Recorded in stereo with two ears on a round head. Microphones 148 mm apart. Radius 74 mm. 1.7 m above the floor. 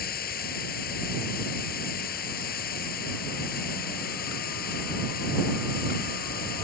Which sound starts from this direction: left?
Running water, at 0.0 s.